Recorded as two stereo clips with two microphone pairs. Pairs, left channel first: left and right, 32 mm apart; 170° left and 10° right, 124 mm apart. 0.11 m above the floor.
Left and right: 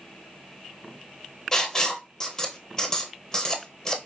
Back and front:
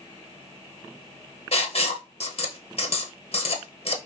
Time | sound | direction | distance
1.5 | writing | 155° left | 0.8 m